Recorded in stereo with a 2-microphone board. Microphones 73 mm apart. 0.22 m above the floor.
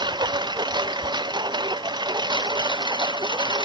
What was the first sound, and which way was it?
A lawn mower, 75° right (ahead or behind).